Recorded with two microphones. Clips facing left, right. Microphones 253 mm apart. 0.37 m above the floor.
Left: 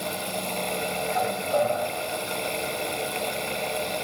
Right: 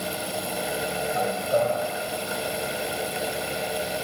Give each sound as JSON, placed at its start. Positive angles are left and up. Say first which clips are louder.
{"t": 1.1, "sound": "a man speaking", "louder": "right 1 dB", "side_deg": -35, "distance_m": 2.0}